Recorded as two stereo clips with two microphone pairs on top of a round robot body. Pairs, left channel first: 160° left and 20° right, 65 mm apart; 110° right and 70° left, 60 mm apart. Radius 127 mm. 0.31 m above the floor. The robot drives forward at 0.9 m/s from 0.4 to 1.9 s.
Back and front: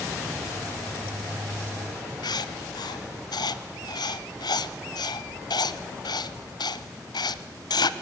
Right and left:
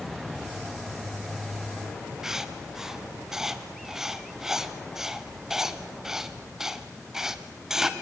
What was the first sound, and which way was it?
Writing, 155° left.